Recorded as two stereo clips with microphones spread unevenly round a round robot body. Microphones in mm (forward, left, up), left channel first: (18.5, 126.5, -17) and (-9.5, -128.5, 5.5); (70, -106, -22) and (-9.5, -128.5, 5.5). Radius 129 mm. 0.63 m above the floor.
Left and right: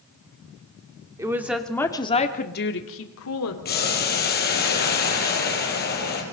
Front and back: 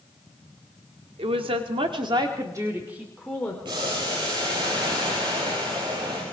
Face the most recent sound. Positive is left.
turn(degrees=140)